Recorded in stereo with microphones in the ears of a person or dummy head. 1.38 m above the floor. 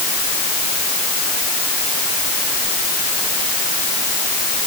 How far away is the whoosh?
No whoosh in this recording.